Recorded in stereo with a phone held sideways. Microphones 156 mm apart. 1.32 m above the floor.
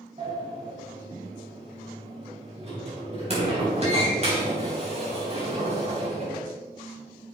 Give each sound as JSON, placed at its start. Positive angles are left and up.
{"t": 0.2, "sound": "a sliding door", "side_deg": -45, "distance_m": 3.5}